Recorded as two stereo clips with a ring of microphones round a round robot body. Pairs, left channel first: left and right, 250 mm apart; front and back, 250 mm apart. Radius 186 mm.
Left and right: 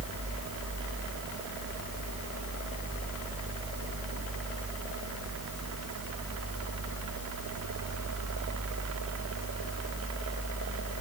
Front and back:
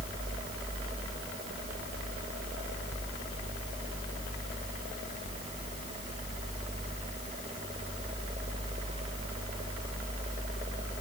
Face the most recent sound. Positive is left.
No sound to turn to.